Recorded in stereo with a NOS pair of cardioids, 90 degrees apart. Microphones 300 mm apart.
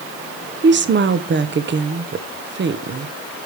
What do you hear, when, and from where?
0.6 s a woman speaking: 35° right, 1.3 m